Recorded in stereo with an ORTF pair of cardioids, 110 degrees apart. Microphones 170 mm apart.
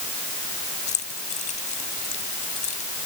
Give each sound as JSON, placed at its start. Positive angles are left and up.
{"t": 0.9, "sound": "keys jangling", "azimuth_deg": 45}